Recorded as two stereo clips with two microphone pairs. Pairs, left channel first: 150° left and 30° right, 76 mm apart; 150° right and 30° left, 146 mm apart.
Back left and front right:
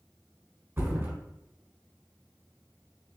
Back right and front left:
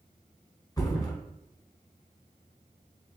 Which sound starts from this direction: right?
A thud, at 0.8 s.